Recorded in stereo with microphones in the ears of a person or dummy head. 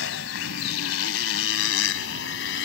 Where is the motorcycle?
75° left (ahead or behind).